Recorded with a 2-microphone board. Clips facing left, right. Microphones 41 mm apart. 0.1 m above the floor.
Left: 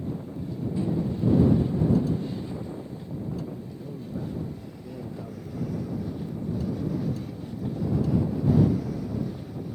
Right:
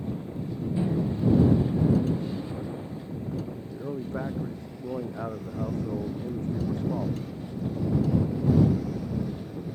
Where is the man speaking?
70° right (ahead or behind).